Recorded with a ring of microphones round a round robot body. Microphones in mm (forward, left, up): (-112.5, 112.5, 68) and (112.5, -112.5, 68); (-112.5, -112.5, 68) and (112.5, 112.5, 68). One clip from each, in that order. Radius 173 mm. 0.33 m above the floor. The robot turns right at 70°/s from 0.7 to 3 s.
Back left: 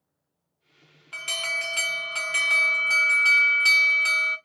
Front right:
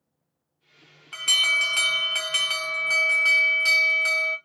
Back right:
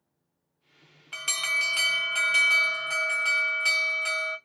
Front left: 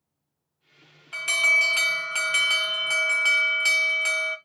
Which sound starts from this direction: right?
An alarm, at 1.1 s.